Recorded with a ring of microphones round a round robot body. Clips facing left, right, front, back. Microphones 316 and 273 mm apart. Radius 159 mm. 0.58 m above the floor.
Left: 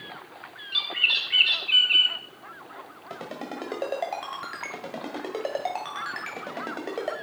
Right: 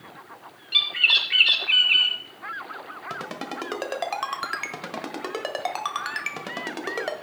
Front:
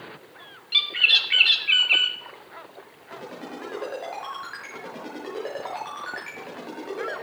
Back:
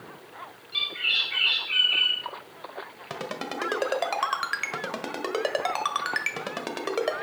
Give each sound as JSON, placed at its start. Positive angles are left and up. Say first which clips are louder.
{"t": 0.7, "sound": "a bird", "louder": "left 1 dB, front 3 dB", "azimuth_deg": -15, "distance_m": 1.0}
{"t": 3.1, "sound": "a ringtone", "louder": "right 1 dB, back 3 dB", "azimuth_deg": -150, "distance_m": 1.3}